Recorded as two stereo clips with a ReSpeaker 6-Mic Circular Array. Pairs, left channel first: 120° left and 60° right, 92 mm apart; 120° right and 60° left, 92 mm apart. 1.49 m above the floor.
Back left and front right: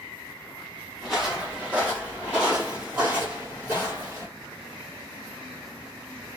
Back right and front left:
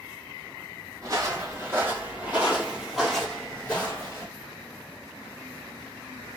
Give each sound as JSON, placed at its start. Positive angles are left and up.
{"t": 1.0, "sound": "footsteps", "azimuth_deg": 20, "distance_m": 2.0}